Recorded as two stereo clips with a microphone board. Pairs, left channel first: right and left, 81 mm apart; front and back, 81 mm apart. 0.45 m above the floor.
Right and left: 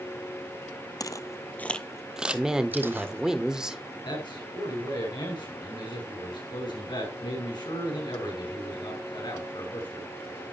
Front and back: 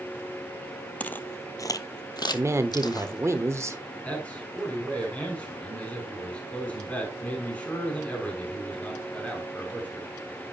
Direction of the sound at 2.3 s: 165° left.